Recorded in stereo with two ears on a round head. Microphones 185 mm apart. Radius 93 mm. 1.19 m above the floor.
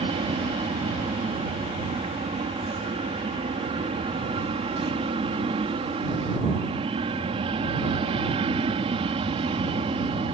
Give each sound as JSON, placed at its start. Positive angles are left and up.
{"t": 0.0, "sound": "an aircraft", "side_deg": -25}